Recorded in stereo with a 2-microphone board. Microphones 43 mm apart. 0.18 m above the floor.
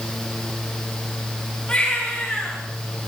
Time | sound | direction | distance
1.7 | a baby crying | 20° left (ahead or behind) | 9.5 m